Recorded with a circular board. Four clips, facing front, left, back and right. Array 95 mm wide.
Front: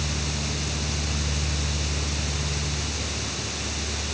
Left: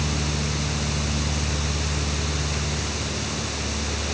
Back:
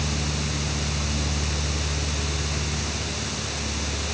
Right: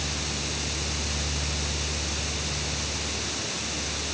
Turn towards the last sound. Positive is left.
No sound to turn to.